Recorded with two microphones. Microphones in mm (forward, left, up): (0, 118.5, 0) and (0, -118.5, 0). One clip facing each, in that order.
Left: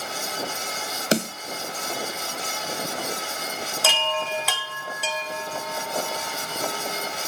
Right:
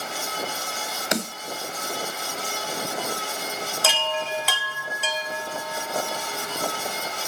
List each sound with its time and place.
1.1 s a snare drum: 35° left (ahead or behind), 2 m
3.8 s a chime: centre (ahead or behind), 1.9 m